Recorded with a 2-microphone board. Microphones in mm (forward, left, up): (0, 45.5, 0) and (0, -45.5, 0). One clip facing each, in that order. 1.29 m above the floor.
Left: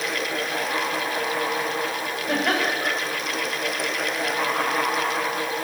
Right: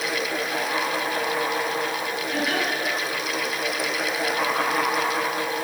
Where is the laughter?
55° left (ahead or behind), 6.5 m.